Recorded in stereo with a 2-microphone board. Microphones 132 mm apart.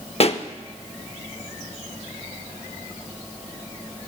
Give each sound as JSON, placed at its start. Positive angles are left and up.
{"t": 0.2, "sound": "a pop", "side_deg": 55, "distance_m": 0.6}